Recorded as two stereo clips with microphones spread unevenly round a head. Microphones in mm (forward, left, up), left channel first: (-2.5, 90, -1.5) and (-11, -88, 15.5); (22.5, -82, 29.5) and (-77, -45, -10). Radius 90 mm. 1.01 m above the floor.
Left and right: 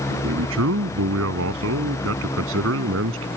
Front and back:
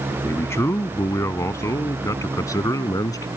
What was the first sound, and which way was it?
A man speaking, 85° right.